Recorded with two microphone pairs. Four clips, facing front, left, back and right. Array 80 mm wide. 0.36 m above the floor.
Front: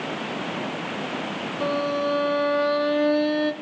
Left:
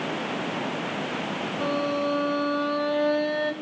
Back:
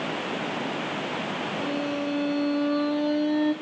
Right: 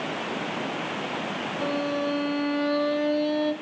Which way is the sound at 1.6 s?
5° left.